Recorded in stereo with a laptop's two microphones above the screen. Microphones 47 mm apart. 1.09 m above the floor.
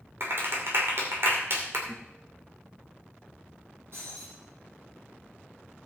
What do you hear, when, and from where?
0.2 s a clap: 60° right (ahead or behind), 2.5 m
1.9 s a guitar: 55° right (ahead or behind), 2.5 m
3.9 s breaking glass: 60° right (ahead or behind), 9 m